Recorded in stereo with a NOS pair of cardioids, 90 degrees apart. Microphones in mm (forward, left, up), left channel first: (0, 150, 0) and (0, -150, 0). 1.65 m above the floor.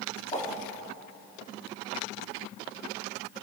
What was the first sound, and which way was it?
A whoosh, 20° left.